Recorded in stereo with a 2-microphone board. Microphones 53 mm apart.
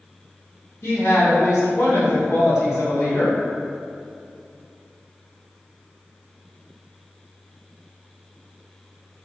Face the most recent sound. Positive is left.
turn(degrees=65)  # may be behind; listen again after turning